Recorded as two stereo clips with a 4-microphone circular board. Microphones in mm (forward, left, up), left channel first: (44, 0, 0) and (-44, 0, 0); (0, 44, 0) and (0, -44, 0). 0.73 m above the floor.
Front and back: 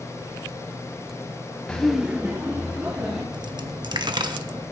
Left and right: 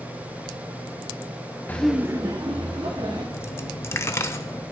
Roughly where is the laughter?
Ahead left.